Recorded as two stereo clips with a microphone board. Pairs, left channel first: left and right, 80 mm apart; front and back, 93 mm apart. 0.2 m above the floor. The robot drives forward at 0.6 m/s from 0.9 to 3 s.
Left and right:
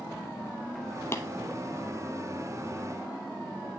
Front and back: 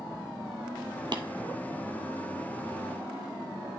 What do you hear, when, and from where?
1.1 s tapping: 150° left, 0.8 m